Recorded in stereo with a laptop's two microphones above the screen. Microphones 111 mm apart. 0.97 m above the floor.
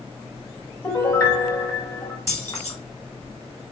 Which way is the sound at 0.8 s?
30° left (ahead or behind).